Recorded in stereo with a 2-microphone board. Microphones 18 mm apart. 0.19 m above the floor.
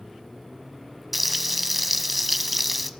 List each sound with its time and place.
1.1 s frying: centre (ahead or behind), 1.5 m